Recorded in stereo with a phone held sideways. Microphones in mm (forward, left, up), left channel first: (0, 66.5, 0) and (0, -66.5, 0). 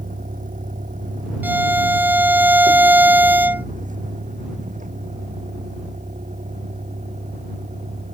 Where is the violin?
15° right (ahead or behind).